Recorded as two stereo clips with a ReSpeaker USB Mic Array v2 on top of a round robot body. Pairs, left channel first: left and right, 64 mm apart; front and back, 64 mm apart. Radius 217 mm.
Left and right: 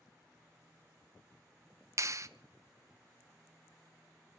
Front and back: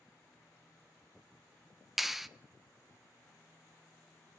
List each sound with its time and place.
2.0 s a clap: 95° right, 1.1 m